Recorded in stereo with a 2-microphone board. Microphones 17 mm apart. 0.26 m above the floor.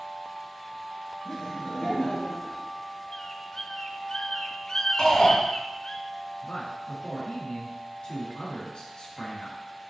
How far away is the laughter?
About 3 m.